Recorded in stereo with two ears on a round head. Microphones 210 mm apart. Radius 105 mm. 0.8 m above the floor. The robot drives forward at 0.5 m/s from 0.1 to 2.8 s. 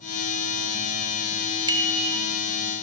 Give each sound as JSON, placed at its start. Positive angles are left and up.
{"t": 1.7, "sound": "a bicycle bell", "side_deg": -20, "distance_m": 2.5}